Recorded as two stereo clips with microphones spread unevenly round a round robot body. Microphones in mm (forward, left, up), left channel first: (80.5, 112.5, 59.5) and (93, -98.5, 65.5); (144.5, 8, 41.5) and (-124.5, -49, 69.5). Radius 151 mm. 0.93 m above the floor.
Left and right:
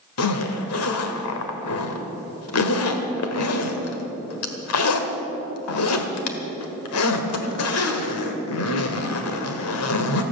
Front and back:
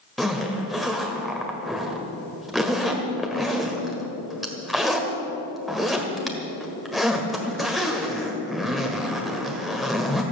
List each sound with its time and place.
0.2 s a zipper: 105° left, 1.4 m